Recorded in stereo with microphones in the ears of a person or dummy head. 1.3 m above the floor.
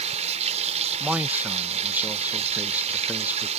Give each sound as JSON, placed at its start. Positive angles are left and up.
{"t": 0.0, "sound": "running water", "side_deg": -35}
{"t": 1.0, "sound": "a man speaking", "side_deg": -5}